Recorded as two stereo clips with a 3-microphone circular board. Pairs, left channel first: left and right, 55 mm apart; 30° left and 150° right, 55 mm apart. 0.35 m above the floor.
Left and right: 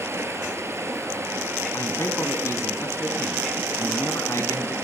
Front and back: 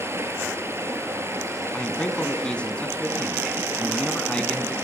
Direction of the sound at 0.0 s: 120° right.